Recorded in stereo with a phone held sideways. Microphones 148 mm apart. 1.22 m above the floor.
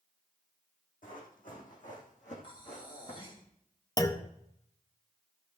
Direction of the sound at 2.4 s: 35° left (ahead or behind).